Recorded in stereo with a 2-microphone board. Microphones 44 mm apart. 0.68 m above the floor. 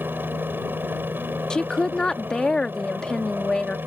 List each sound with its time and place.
0.0 s a helicopter: 55° right (ahead or behind)
1.5 s a woman speaking: 20° left (ahead or behind)